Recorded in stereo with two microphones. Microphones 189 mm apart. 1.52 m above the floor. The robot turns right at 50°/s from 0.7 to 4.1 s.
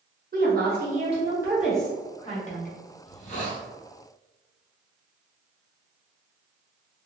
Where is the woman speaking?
50° right, 1.1 m; by 2.7 s 50° left, 1.1 m.